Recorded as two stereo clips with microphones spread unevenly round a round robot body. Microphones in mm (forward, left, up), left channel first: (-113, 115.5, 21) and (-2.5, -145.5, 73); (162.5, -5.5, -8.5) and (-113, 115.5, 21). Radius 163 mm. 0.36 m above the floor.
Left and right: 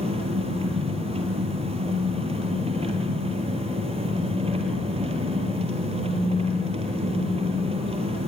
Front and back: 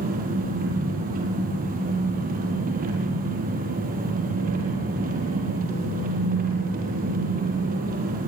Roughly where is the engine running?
Behind right.